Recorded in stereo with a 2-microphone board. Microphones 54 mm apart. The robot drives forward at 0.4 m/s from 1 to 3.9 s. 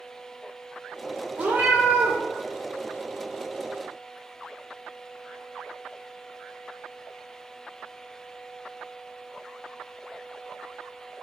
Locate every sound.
1.4 s a cat meowing: 30° right (ahead or behind), 1.1 m; by 2.2 s 40° right (ahead or behind), 0.8 m